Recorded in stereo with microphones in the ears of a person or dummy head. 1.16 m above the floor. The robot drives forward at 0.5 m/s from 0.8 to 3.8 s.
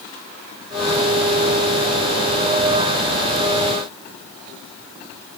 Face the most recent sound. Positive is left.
No sound to turn to.